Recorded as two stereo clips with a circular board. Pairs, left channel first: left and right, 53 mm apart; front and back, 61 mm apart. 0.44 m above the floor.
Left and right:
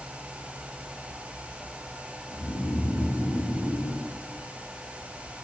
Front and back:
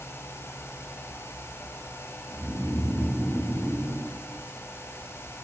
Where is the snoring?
100° left, 8.5 m.